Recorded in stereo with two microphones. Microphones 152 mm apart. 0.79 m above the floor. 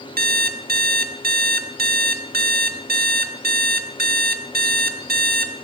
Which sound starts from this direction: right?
An alarm clock, at 0.2 s.